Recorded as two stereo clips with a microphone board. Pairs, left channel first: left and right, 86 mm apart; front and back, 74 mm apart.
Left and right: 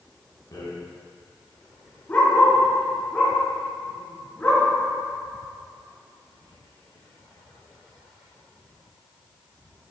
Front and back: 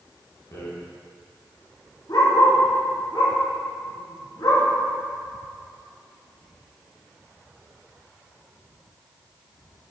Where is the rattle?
45° left, 2.5 m.